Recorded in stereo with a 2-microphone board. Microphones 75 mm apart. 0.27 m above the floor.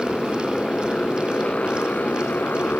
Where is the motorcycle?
10° left (ahead or behind); by 2.8 s 25° left (ahead or behind).